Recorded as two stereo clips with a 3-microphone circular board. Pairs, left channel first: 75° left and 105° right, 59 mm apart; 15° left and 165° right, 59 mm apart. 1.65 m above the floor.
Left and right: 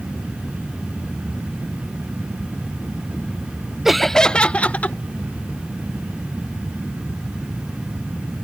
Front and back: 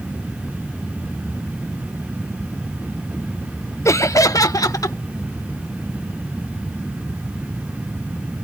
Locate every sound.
3.9 s laughter: 20° right; by 5.0 s 15° left